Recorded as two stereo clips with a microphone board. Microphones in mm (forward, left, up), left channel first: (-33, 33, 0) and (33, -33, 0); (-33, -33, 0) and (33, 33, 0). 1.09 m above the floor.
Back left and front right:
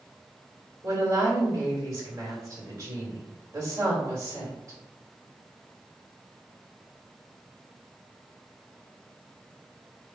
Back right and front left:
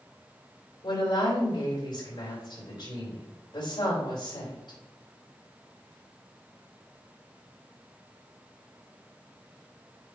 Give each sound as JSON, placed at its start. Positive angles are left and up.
{"t": 0.8, "sound": "a woman speaking", "azimuth_deg": -100, "distance_m": 3.5}